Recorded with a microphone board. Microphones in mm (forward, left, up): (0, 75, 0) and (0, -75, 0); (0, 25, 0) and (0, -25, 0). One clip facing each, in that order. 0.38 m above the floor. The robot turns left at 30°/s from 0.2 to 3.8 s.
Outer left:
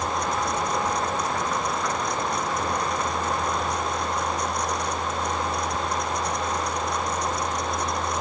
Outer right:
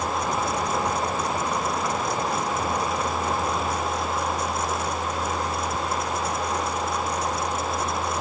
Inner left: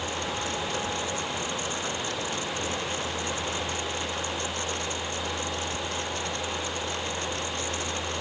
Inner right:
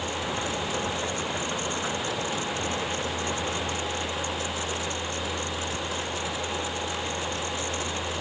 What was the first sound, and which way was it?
Only background noise.